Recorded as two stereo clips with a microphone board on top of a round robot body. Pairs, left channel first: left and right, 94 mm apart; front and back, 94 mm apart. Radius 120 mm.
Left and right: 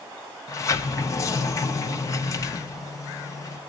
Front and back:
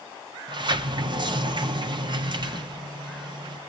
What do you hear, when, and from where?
0.5 s a sliding door: 145° left, 1.0 m